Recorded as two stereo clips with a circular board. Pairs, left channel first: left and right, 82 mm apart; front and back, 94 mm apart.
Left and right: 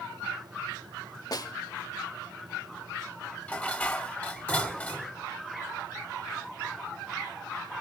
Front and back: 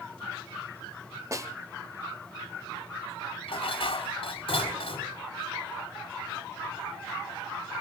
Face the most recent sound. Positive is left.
turn(degrees=20)